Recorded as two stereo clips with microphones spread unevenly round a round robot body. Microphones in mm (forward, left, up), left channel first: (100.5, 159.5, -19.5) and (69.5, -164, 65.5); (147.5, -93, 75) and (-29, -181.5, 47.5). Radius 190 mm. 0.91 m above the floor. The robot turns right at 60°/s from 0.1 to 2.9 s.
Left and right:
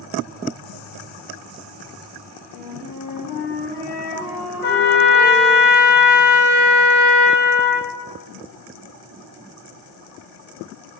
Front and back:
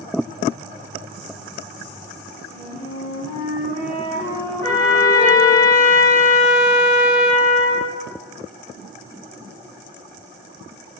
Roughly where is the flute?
Ahead right.